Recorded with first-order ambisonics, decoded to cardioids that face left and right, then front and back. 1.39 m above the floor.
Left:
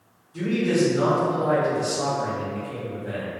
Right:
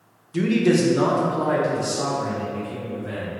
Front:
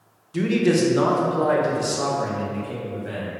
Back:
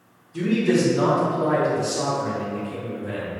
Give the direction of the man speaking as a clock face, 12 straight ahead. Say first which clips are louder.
Right 3 dB, front 1 dB; 2 o'clock.